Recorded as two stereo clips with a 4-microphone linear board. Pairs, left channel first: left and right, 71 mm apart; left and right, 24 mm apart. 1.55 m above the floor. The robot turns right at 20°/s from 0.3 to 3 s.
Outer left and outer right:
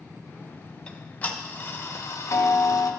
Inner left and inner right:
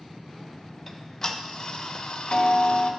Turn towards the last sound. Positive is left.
turn(degrees=60)